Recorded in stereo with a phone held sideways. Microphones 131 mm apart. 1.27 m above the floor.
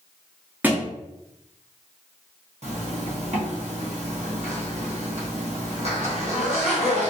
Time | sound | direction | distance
0.6 | a thud | 15° right (ahead or behind) | 0.6 m
2.6 | a zipper | 55° right (ahead or behind) | 0.9 m